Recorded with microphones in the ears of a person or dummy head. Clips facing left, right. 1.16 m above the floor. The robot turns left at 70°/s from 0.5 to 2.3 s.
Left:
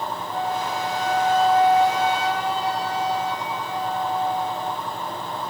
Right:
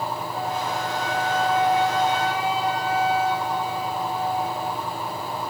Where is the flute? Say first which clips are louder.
Left 4 dB; 120° left, 6 m; by 4.8 s 5° right, 6 m.